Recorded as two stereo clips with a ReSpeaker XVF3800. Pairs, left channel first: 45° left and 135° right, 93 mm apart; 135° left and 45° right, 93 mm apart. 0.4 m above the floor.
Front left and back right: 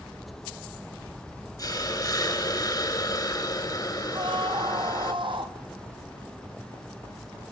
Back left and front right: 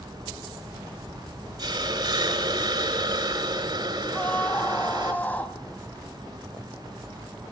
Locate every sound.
1.6 s a hiss: 5° right, 3 m
4.1 s a scream: 155° right, 3 m